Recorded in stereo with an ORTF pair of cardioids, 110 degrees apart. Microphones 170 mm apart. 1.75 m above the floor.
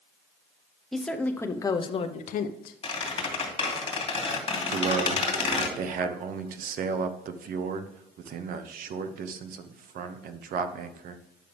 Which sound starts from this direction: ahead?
A woman speaking, at 0.9 s.